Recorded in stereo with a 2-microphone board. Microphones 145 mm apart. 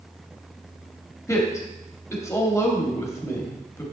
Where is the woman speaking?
20° left (ahead or behind), 1.1 m.